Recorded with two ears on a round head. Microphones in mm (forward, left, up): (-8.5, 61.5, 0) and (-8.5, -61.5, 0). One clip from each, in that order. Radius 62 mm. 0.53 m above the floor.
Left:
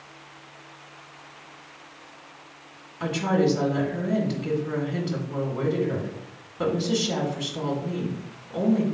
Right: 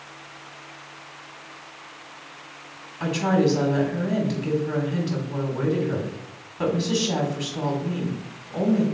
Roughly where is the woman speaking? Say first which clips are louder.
Right 2 dB; centre.